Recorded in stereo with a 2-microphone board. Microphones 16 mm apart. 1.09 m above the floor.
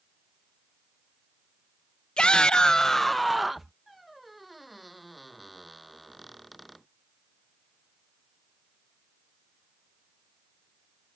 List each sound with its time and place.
2.2 s a shout: 65° left (ahead or behind); by 3.7 s 15° right (ahead or behind)
3.9 s a squeak: 5° right (ahead or behind)